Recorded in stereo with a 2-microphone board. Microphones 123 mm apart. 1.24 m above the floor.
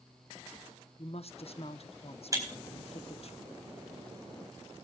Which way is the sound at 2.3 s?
30° right (ahead or behind).